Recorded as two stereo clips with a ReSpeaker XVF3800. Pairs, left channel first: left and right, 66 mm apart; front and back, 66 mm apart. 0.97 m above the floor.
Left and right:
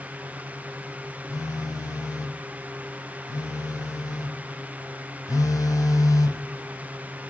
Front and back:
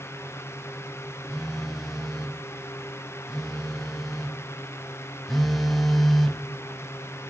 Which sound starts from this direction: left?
A phone buzzing, at 1.3 s.